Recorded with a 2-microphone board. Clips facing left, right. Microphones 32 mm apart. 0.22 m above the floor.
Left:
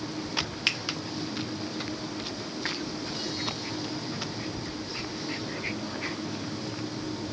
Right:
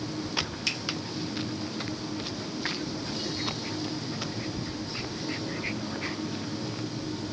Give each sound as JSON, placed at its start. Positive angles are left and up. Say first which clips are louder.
{"t": 0.7, "sound": "a finger snap", "louder": "left 6 dB", "side_deg": 40, "distance_m": 1.2}